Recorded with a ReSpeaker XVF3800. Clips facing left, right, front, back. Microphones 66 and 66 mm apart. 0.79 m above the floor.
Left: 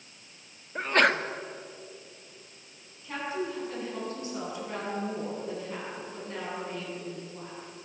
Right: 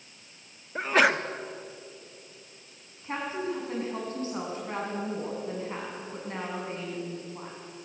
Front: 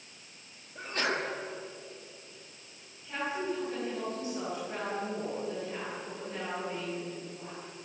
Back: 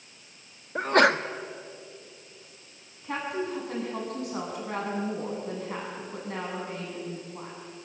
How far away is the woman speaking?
About 8 m.